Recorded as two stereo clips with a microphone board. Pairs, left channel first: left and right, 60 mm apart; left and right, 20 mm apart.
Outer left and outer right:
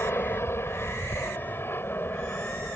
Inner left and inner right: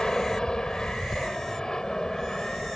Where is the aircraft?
45° left (ahead or behind); by 2.8 s 35° left (ahead or behind).